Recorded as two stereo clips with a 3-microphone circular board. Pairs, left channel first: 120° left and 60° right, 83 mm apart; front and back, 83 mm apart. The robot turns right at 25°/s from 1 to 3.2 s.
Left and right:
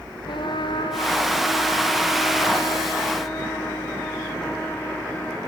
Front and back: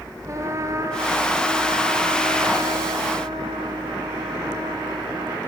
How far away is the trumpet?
About 1.6 m.